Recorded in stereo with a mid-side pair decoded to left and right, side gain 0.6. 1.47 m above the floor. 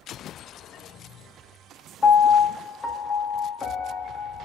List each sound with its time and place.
2.0 s a piano: 30° left, 0.5 m